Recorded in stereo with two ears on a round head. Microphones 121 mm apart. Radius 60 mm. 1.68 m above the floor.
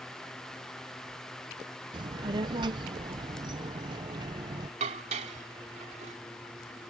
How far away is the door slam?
I don't hear a door slam.